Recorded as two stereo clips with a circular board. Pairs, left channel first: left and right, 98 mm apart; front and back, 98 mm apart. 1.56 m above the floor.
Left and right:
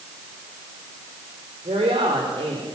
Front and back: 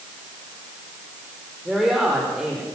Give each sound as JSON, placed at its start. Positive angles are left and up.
{"t": 1.6, "sound": "a woman speaking", "azimuth_deg": -95, "distance_m": 5.0}